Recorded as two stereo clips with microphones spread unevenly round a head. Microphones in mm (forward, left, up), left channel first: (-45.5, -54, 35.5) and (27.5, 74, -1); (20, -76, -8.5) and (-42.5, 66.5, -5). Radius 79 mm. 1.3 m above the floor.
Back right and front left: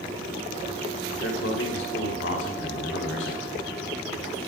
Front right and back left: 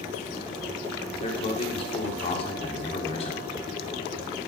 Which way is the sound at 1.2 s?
120° right.